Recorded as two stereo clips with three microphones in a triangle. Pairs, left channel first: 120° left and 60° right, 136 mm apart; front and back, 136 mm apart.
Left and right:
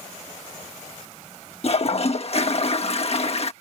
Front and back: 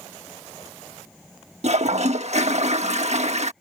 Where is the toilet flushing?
155° left.